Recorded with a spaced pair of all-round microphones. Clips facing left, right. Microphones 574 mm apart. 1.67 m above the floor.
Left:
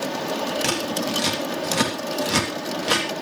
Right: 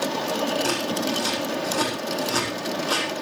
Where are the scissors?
90° left, 3.5 m.